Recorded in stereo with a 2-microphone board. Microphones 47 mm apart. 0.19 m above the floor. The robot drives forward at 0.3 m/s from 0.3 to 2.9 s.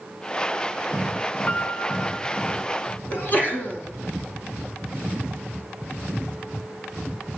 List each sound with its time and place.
1.5 s a piano: 40° left (ahead or behind), 0.7 m; by 2.6 s 30° left (ahead or behind), 0.9 m
3.1 s a sneeze: 40° left (ahead or behind), 1.8 m